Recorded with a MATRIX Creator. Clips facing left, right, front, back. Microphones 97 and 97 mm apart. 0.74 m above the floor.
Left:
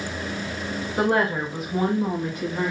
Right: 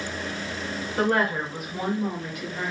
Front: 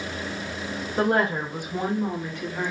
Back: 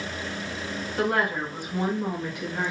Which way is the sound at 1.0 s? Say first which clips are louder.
Left 2 dB, front 3 dB; 25° left.